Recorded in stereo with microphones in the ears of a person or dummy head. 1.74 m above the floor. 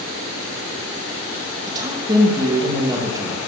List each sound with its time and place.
1.7 s a woman speaking: 20° right (ahead or behind), 2.5 m